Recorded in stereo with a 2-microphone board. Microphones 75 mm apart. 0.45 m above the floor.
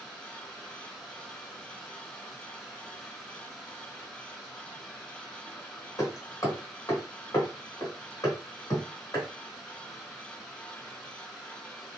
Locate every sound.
0.0 s running water: 5° left (ahead or behind), 1.9 m
6.0 s hammering: 40° left (ahead or behind), 3 m